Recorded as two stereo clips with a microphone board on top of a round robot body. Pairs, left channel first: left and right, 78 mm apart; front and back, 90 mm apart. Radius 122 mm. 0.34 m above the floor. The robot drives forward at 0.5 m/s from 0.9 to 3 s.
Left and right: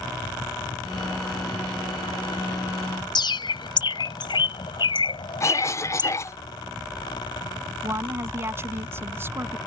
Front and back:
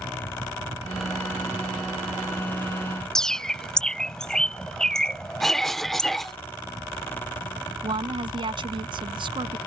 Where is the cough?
85° left.